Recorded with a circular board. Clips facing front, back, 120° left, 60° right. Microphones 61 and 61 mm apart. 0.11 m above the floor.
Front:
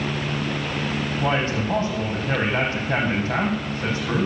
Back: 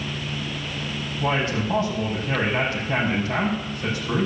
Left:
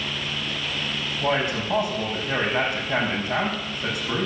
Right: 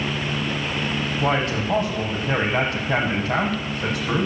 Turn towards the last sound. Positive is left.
turn(degrees=-55)